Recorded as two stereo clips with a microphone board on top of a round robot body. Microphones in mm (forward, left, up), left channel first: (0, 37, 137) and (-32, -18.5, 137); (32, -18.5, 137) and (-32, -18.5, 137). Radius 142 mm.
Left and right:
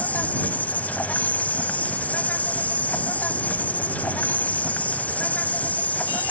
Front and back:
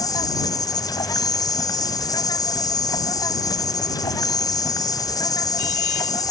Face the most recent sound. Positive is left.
turn(degrees=-5)